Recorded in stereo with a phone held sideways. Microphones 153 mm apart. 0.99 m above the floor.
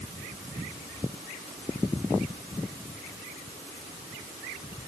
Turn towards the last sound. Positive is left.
No sound to turn to.